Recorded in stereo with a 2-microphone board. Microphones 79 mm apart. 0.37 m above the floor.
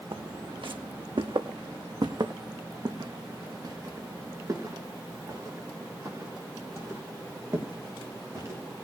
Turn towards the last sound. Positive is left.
turn(degrees=-30)  # may be behind; listen again after turning